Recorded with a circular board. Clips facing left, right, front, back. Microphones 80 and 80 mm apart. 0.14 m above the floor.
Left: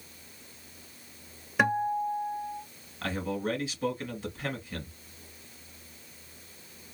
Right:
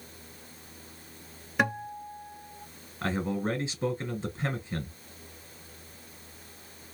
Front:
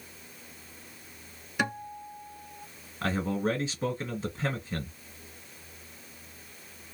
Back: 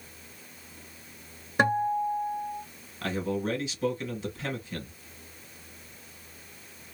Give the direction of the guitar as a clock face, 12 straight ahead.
6 o'clock.